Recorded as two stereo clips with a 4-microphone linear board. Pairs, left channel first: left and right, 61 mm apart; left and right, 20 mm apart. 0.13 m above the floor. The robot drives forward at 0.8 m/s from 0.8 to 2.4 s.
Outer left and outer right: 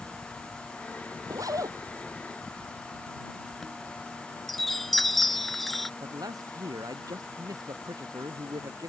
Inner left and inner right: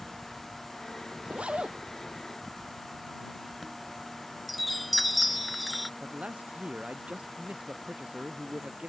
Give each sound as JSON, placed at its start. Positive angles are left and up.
{"t": 1.2, "sound": "a zipper", "side_deg": -70}
{"t": 3.5, "sound": "a chime", "side_deg": 0}
{"t": 6.0, "sound": "a man speaking", "side_deg": -85}